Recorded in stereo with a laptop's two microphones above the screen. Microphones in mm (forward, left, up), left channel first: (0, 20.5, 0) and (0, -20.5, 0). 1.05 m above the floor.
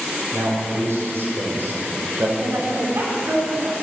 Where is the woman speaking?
70° right (ahead or behind), 4 m.